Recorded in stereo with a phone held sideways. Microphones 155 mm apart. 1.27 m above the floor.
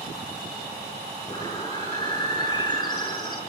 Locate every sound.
1.3 s a bird: 25° left (ahead or behind), 9.5 m